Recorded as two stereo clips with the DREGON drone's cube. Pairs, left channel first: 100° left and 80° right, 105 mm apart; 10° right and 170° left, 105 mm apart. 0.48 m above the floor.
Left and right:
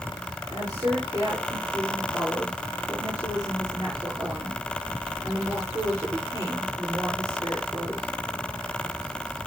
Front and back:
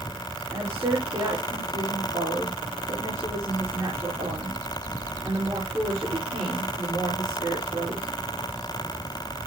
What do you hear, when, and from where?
0.5 s a woman speaking: 130° right, 6.5 m